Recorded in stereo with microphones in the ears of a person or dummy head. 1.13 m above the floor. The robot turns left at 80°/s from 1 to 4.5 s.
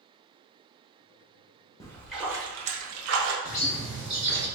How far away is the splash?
About 0.8 m.